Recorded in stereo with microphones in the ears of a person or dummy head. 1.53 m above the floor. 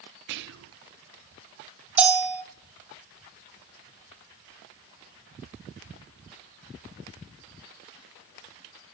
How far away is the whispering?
About 0.6 m.